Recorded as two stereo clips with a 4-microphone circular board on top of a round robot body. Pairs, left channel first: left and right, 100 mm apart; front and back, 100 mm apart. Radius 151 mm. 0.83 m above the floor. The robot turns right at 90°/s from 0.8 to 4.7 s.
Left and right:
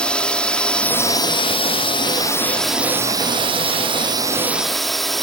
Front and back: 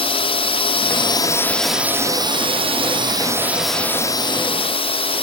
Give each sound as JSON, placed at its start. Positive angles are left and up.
{"t": 0.0, "sound": "a drone", "azimuth_deg": 10}